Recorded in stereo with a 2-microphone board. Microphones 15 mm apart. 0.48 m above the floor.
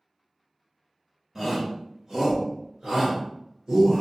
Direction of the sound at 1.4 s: 20° right (ahead or behind).